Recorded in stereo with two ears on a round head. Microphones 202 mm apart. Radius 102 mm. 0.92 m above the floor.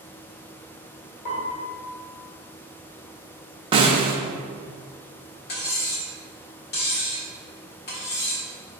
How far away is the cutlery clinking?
About 1.4 m.